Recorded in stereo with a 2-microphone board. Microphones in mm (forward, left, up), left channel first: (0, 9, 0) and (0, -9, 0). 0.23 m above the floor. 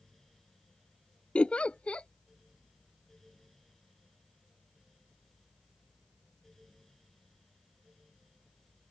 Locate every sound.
1.4 s a giggle: 80° left